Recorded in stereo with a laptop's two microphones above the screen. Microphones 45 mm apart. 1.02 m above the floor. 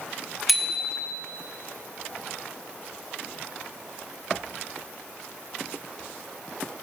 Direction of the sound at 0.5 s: 5° right (ahead or behind).